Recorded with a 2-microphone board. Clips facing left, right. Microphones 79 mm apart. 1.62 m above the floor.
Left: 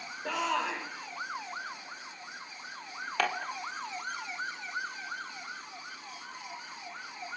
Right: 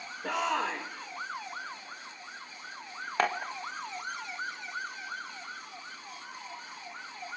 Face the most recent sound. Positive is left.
turn(degrees=-30)  # may be behind; listen again after turning